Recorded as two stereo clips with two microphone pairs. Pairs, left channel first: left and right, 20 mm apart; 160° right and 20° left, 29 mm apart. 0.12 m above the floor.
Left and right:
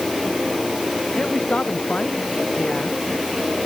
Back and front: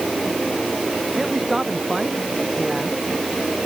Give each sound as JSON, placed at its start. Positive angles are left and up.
{"t": 1.1, "sound": "a man speaking", "azimuth_deg": 105}